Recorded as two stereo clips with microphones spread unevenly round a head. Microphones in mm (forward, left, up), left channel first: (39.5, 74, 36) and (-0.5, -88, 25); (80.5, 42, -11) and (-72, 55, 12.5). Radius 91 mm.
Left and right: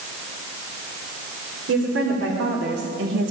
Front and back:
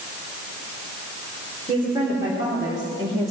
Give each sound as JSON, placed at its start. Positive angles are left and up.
{"t": 1.7, "sound": "a woman speaking", "azimuth_deg": -115, "distance_m": 5.0}